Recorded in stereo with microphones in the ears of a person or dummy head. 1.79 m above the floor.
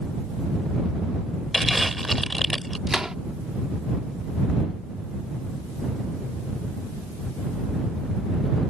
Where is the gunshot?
Centre (ahead or behind).